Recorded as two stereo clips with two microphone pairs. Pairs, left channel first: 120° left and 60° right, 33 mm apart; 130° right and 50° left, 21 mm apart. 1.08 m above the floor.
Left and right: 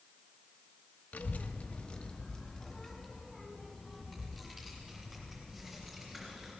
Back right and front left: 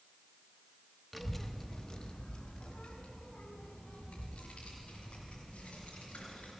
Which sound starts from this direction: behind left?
A child speaking, at 1.1 s.